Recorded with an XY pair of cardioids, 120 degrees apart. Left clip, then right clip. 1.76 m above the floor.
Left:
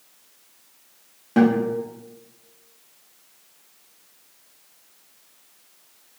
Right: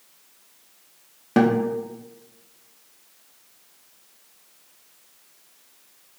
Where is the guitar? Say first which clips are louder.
Even; 35° right, 0.5 m.